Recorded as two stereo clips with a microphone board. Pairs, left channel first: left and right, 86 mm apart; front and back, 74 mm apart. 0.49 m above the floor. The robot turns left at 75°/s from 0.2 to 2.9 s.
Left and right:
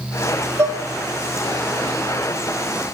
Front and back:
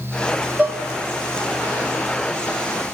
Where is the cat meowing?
No cat meowing in this recording.